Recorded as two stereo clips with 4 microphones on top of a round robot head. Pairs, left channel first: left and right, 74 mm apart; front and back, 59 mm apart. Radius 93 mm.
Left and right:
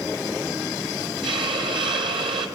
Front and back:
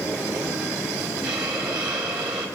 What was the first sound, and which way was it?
A hiss, 105° right.